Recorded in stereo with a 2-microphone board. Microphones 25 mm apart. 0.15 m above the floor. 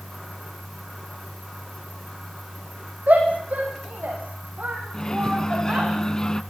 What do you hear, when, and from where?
3.1 s a shout: 80° right, 8.5 m; by 5.9 s 70° right (ahead or behind), 10.5 m
4.9 s a microwave: 30° left (ahead or behind), 1.0 m